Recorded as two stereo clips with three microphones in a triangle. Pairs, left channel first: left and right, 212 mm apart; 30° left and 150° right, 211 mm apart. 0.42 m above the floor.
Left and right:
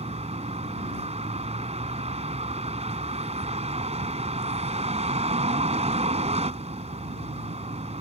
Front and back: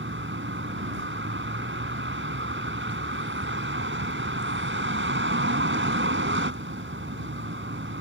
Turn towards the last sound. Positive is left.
turn(degrees=-145)